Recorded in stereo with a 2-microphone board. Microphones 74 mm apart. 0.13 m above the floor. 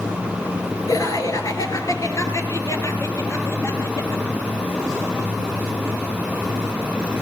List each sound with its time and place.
0.9 s laughter: 55° left (ahead or behind), 2.5 m; by 4.7 s 35° left (ahead or behind), 3.5 m